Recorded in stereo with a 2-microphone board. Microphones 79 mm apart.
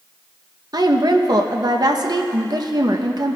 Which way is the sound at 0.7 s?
55° right (ahead or behind).